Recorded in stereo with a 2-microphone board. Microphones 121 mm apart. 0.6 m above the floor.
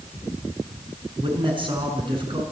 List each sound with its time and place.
1.2 s a man speaking: 40° right (ahead or behind), 6 m